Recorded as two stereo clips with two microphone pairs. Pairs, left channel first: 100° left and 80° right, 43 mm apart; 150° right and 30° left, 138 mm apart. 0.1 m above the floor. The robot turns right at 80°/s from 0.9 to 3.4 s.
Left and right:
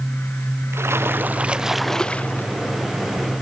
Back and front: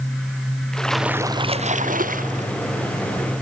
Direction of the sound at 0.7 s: 65° right.